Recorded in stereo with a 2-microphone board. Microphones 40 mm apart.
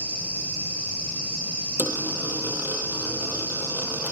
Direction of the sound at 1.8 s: 50° right (ahead or behind).